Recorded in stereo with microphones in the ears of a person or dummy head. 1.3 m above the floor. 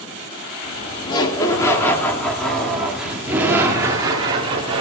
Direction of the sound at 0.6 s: 25° left (ahead or behind).